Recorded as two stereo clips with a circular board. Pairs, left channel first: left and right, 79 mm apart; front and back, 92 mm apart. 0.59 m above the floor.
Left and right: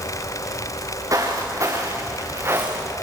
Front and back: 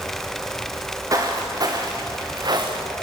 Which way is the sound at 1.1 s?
130° right.